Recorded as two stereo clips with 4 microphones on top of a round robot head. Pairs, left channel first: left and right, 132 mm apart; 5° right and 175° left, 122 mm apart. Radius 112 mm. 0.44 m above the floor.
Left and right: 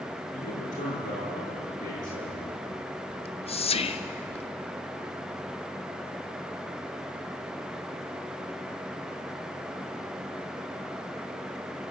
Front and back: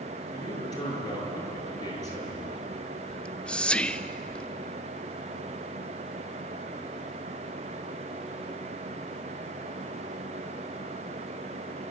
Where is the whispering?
75° left, 1.0 m.